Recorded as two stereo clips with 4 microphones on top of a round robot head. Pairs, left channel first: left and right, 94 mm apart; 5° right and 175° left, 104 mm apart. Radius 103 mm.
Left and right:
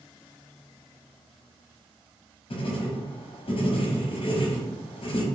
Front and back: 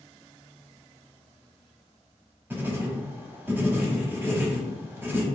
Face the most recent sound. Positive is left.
turn(degrees=105)